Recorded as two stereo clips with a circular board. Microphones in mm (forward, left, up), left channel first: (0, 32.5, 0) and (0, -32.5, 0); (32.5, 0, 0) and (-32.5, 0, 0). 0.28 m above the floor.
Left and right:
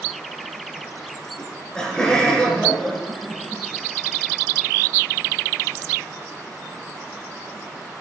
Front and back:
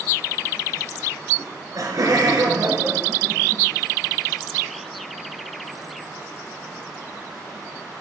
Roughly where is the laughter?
Behind.